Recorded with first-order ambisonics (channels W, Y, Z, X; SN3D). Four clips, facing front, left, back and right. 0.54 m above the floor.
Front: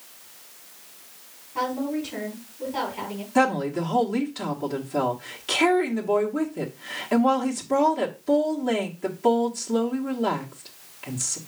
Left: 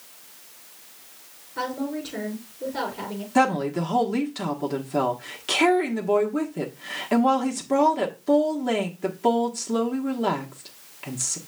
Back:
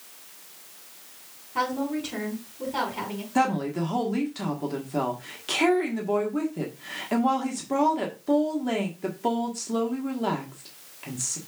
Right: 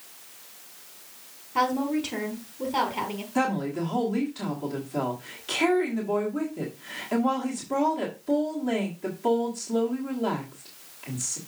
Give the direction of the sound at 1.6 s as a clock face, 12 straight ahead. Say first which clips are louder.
Right 4 dB, even; 3 o'clock.